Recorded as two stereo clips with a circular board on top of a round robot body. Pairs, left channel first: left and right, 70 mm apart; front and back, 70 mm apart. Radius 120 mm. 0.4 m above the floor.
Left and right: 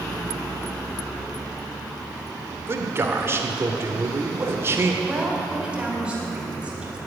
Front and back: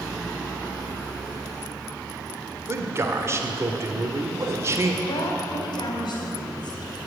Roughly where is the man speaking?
Behind right.